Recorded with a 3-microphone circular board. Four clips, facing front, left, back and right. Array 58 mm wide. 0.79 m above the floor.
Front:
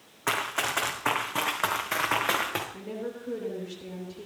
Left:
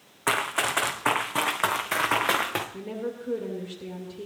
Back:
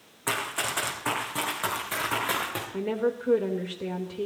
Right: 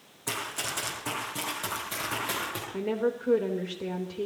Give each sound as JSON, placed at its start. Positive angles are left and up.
{"t": 0.3, "sound": "running footsteps", "azimuth_deg": 75, "distance_m": 3.0}
{"t": 2.7, "sound": "a woman speaking", "azimuth_deg": -145, "distance_m": 3.0}